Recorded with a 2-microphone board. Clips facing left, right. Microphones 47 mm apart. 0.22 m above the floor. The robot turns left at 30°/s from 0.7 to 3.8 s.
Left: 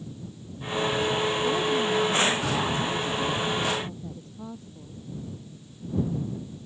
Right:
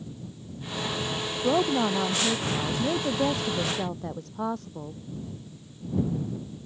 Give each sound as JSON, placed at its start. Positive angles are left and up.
{"t": 1.4, "sound": "a woman speaking", "azimuth_deg": -45}